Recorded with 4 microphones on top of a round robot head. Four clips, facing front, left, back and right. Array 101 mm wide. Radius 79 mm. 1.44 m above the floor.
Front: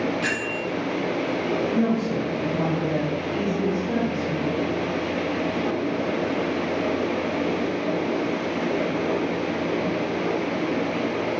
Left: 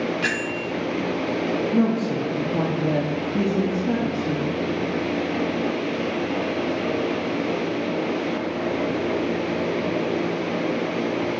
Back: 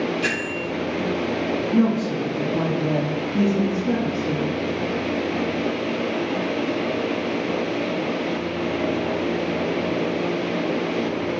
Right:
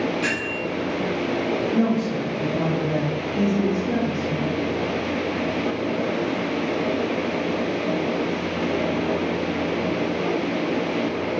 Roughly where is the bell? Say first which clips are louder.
Even, back 1 dB; left.